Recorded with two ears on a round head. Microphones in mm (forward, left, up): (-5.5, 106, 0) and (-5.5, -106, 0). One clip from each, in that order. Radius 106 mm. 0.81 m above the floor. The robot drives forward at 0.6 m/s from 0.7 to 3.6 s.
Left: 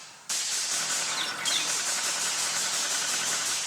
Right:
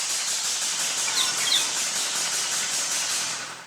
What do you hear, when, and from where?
1.1 s a bird: 30° right (ahead or behind), 6.5 m; by 1.7 s 35° right (ahead or behind), 6.5 m